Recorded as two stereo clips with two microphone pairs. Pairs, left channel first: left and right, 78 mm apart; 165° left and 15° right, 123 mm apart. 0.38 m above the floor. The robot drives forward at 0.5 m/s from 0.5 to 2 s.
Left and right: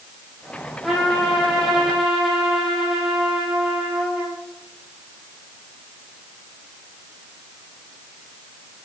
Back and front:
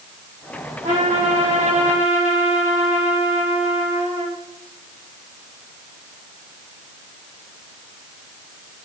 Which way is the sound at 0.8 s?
Straight ahead.